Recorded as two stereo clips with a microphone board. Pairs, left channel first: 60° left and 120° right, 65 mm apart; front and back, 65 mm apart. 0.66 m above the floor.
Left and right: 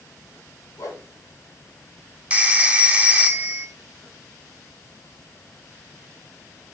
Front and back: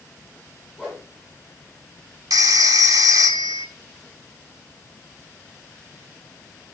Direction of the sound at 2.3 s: 170° left.